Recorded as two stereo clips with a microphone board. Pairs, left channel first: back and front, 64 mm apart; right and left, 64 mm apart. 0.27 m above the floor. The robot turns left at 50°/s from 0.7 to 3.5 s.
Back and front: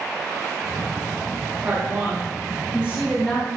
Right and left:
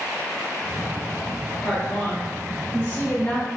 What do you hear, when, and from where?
1.6 s a woman speaking: 5° left, 1.3 m; by 3.5 s 85° right, 1.3 m